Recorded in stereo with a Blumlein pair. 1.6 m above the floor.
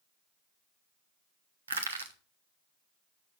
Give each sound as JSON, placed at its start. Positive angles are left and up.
{"t": 1.7, "sound": "crushing", "azimuth_deg": -70, "distance_m": 1.5}